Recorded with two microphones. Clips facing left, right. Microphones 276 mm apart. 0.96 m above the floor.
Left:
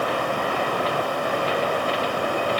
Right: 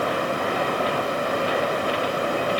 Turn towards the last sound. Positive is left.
No sound to turn to.